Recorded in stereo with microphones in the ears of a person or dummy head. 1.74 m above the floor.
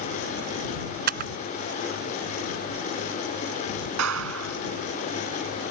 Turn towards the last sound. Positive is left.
turn(degrees=-85)